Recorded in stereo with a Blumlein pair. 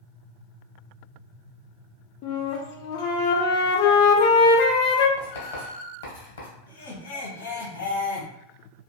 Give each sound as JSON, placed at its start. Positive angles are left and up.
{"t": 2.2, "sound": "a flute", "azimuth_deg": 45, "distance_m": 0.6}
{"t": 5.2, "sound": "writing", "azimuth_deg": 60, "distance_m": 1.1}
{"t": 6.7, "sound": "laughter", "azimuth_deg": 70, "distance_m": 1.5}